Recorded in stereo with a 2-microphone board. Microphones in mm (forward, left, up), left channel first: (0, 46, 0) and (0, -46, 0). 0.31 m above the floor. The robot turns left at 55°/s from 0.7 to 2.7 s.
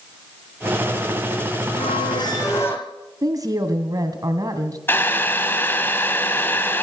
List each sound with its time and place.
1.8 s a squeak: 75° left, 4.5 m; by 2.9 s 25° left, 4.5 m
3.2 s a woman speaking: 40° right (ahead or behind), 2.5 m
4.9 s boiling: 25° left (ahead or behind), 2 m